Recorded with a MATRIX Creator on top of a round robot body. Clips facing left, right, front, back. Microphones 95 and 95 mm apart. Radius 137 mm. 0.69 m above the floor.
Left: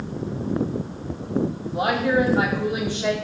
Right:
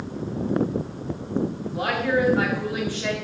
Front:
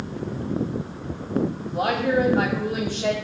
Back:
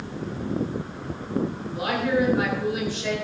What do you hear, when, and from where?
1.6 s a woman speaking: 30° left, 5.5 m